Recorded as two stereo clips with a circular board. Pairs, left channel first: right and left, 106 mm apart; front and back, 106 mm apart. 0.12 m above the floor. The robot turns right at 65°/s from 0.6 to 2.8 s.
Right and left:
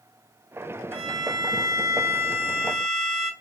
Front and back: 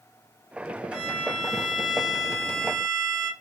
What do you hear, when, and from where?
0.9 s a violin: 80° left, 1.5 m; by 3.3 s 155° right, 1.5 m